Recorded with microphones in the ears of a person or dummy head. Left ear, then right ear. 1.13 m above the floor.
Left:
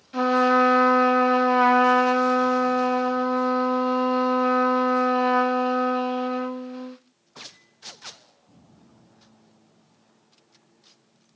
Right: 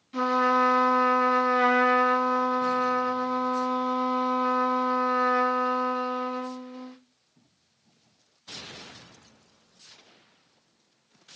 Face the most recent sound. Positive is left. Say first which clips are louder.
# left 3 dB
turn(degrees=10)  # may be behind; listen again after turning